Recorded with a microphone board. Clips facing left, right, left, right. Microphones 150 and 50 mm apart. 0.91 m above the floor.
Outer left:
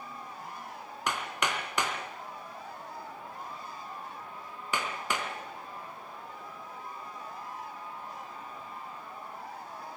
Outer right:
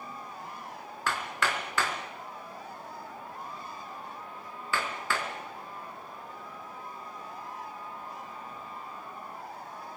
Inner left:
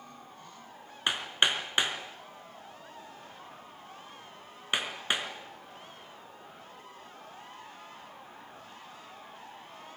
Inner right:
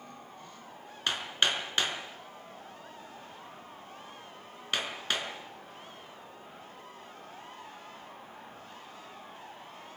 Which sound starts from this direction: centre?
Hammering, at 1.1 s.